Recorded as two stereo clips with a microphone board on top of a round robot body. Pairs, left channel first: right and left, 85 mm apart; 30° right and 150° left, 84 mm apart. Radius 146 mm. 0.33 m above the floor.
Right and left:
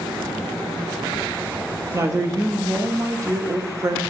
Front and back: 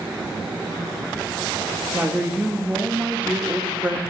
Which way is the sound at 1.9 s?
85° left.